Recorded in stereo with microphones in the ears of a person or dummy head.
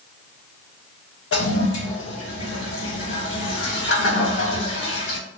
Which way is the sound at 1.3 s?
65° left (ahead or behind).